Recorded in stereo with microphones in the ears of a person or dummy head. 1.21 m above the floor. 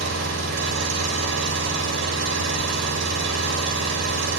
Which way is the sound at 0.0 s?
70° right (ahead or behind).